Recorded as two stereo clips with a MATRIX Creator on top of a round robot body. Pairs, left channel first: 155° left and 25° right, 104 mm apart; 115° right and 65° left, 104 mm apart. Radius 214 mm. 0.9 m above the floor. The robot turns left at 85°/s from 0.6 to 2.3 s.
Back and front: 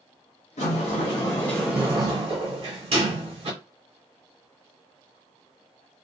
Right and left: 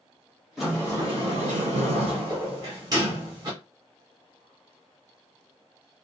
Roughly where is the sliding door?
Behind left.